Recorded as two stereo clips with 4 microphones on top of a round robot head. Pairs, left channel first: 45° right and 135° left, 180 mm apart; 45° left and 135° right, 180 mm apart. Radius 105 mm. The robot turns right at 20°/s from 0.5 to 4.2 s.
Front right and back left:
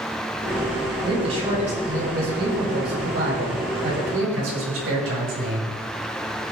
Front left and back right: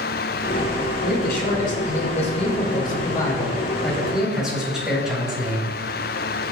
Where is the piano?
No piano in this recording.